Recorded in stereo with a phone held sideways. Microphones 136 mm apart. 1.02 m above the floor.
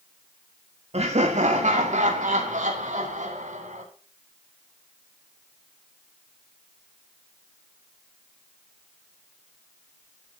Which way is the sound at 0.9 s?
60° right (ahead or behind).